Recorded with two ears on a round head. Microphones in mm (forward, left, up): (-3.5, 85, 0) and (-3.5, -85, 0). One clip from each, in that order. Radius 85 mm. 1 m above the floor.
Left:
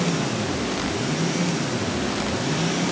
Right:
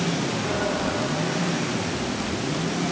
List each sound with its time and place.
Only background noise.